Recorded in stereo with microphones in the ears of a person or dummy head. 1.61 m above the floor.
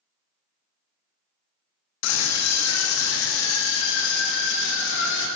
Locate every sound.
2.0 s a scream: 75° left (ahead or behind), 1.3 m; by 5.3 s 70° left (ahead or behind), 2.5 m